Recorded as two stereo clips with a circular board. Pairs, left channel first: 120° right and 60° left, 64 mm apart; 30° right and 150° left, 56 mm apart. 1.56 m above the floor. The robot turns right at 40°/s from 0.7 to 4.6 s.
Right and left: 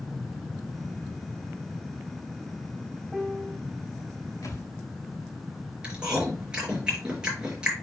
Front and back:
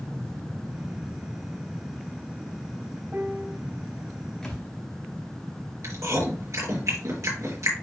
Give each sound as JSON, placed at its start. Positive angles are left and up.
{"t": 3.1, "sound": "a piano", "azimuth_deg": 135, "distance_m": 1.3}
{"t": 4.4, "sound": "a thud", "azimuth_deg": -110, "distance_m": 3.5}
{"t": 5.8, "sound": "chewing", "azimuth_deg": 135, "distance_m": 4.5}